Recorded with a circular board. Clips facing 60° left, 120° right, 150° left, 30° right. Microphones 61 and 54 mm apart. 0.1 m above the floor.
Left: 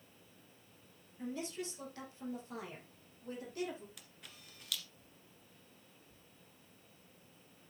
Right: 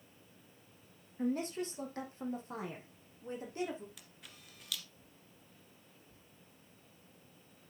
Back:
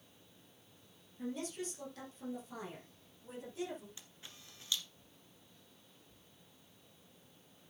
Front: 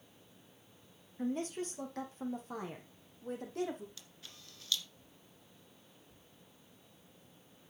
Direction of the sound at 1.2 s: 75° right.